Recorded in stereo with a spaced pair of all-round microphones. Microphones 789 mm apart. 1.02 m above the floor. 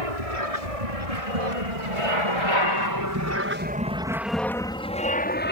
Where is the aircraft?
45° right (ahead or behind); by 5.5 s 15° left (ahead or behind).